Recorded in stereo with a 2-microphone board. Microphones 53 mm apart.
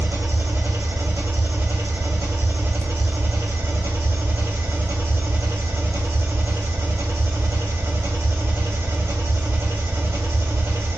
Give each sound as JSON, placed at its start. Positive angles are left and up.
{"t": 0.0, "sound": "an engine running", "side_deg": -50, "distance_m": 4.0}